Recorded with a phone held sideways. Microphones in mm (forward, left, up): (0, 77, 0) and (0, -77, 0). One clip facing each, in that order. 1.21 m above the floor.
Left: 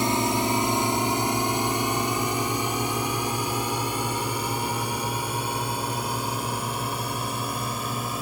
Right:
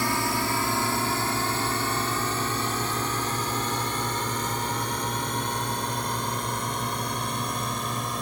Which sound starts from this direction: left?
A drone, at 0.0 s.